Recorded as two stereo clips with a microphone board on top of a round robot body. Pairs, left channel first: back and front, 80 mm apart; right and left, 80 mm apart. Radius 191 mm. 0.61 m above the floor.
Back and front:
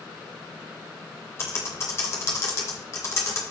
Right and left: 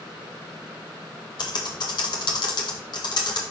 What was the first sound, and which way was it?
Typing on a keyboard, 125° right.